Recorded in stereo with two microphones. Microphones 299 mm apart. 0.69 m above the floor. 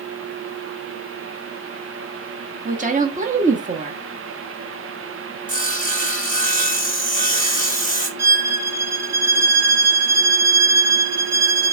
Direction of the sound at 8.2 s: 60° right (ahead or behind).